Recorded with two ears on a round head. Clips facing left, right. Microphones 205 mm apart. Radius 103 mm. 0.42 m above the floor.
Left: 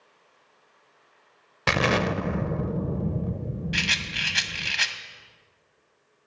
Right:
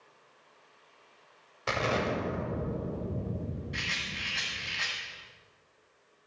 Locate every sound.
1.7 s an explosion: 75° left (ahead or behind), 0.6 m
3.7 s a rattle: 80° left, 0.8 m